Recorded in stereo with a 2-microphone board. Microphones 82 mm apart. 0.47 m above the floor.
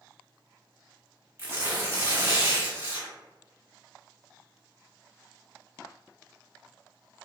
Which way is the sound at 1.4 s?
30° right (ahead or behind).